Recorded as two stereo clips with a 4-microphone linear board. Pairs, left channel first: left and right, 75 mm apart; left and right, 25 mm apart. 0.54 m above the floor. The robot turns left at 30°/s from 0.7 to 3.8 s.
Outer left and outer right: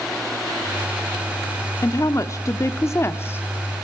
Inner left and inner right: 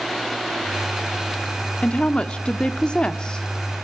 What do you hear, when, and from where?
1.8 s a woman speaking: 90° left, 0.8 m; by 3.5 s 45° left, 0.8 m